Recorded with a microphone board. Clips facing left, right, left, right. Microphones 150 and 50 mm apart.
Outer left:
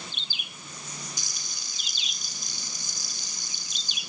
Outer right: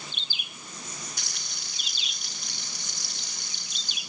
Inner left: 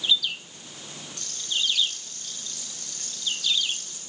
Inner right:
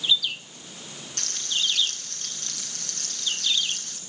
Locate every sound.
1.2 s frying: 55° right (ahead or behind), 5.5 m